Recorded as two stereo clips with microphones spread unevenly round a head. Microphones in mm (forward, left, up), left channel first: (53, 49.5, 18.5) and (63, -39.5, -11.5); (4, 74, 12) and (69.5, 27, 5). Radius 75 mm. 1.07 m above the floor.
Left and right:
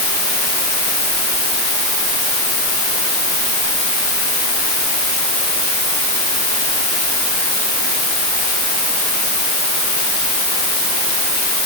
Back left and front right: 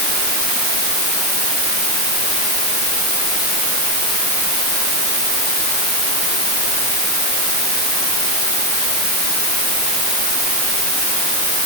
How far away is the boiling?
No boiling in this recording.